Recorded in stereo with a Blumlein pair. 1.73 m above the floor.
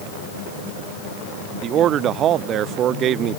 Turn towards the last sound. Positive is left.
turn(degrees=-30)